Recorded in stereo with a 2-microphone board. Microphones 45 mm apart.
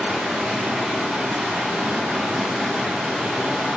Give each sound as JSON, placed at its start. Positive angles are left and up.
{"t": 0.0, "sound": "running water", "side_deg": -15, "distance_m": 1.2}